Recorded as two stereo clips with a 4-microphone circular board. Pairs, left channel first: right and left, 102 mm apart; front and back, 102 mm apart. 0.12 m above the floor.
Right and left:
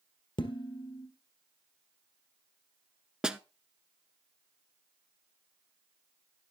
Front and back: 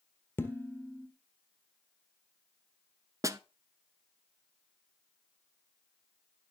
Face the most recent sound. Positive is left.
turn(degrees=165)